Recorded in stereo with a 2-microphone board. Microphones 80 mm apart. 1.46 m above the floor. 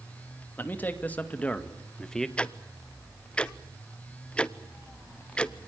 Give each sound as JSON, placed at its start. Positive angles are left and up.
{"t": 0.6, "sound": "a man speaking", "side_deg": 25, "distance_m": 2.0}
{"t": 2.4, "sound": "ticking", "side_deg": 15, "distance_m": 0.7}